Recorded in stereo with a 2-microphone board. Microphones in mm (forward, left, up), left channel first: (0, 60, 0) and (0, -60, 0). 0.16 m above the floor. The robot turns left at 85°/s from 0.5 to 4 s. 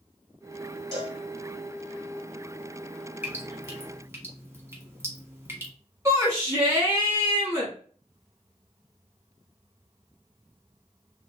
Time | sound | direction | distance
0.9 | a cowbell | 30° right (ahead or behind) | 1.7 m
3.2 | dripping | 15° right (ahead or behind) | 1.0 m
6.0 | a shout | 25° right (ahead or behind) | 1.5 m